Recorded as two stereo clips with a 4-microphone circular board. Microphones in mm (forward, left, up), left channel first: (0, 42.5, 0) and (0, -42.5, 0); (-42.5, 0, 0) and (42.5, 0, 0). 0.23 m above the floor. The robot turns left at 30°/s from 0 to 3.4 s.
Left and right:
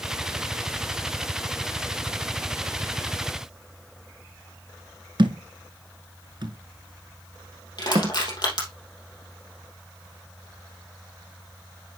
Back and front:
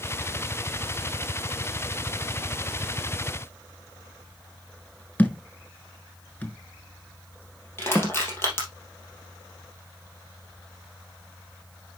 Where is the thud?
110° right, 0.9 m.